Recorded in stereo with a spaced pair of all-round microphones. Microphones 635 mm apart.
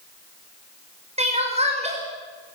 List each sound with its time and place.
1.2 s crying: 10° right (ahead or behind), 5.5 m